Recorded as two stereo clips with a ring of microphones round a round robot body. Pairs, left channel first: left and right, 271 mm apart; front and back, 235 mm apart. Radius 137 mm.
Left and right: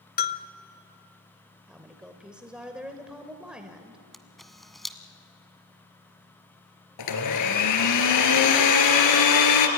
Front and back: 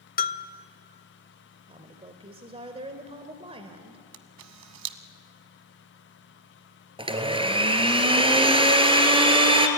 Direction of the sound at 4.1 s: Straight behind.